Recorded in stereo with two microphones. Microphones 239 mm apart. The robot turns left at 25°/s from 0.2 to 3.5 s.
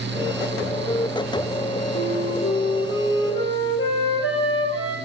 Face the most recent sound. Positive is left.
turn(degrees=65)